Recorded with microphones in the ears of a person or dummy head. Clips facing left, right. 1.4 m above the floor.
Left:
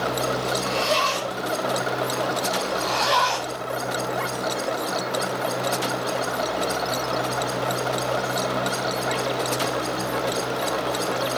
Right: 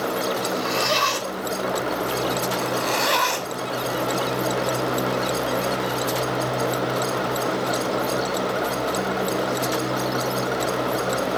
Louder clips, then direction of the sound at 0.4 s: Even; 10° right (ahead or behind).